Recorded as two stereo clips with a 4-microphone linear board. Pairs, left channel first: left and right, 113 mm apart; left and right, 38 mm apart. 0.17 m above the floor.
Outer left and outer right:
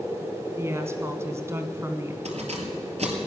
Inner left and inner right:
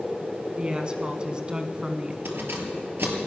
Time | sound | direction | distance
0.6 | a woman speaking | 25° right (ahead or behind) | 1.2 m
2.2 | keys jangling | 70° right (ahead or behind) | 2.5 m